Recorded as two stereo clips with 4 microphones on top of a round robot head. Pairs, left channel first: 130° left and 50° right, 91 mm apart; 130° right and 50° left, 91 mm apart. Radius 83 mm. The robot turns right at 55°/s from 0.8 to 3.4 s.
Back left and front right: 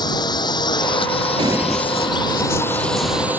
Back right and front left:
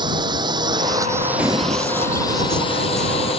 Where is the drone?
90° left; by 3.4 s 115° right.